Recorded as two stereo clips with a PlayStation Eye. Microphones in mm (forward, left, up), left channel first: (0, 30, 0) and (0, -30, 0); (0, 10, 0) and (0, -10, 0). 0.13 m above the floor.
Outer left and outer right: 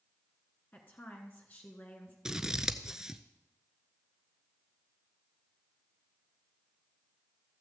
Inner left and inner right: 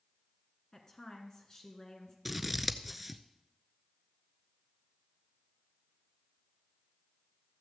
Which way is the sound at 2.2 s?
10° right (ahead or behind).